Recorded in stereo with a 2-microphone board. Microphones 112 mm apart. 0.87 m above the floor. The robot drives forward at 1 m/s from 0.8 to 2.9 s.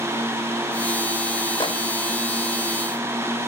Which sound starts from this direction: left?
A microwave, at 1.6 s.